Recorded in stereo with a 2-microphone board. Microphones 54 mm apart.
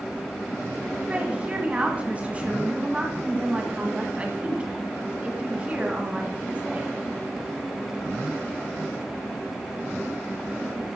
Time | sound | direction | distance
1.1 | a woman speaking | 20° right (ahead or behind) | 1.7 m